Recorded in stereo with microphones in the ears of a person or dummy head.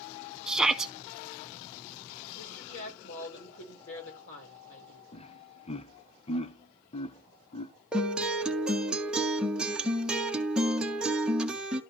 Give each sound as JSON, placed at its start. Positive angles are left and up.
{"t": 0.5, "sound": "a shout", "side_deg": 0, "distance_m": 0.7}
{"t": 2.4, "sound": "a woman speaking", "side_deg": 70, "distance_m": 5.0}
{"t": 5.1, "sound": "laughter", "side_deg": 35, "distance_m": 0.7}
{"t": 7.9, "sound": "a guitar", "side_deg": -5, "distance_m": 1.3}